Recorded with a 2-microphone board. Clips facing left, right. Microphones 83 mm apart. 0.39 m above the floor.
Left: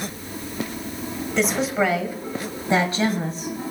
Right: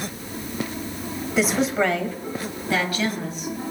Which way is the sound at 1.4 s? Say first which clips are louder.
Right 1 dB; 5° right (ahead or behind).